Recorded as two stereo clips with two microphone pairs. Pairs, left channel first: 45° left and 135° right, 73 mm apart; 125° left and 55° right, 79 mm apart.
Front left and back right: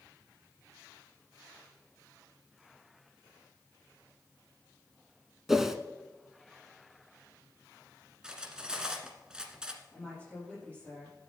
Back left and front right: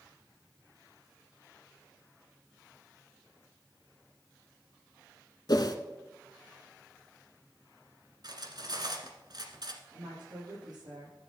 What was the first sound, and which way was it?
A whoosh, 140° left.